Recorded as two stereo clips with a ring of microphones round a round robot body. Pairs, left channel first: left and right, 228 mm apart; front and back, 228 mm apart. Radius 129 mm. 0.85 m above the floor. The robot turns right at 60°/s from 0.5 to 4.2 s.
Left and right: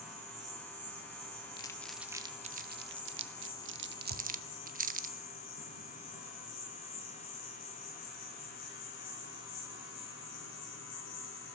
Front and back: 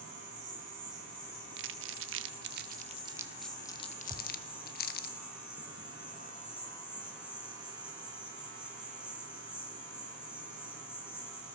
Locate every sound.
0.0 s an insect: 140° right, 9 m; by 11.6 s 80° left, 9 m
1.6 s crumpling: 160° left, 1.0 m; by 5.1 s 45° right, 1.0 m
4.1 s a thud: 100° right, 3.5 m; by 4.3 s 95° right, 3.5 m